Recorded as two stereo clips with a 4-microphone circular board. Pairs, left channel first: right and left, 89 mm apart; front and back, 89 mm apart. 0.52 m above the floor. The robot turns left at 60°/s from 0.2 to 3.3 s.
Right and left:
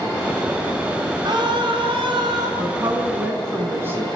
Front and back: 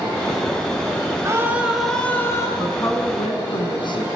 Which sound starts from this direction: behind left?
A scream, at 1.2 s.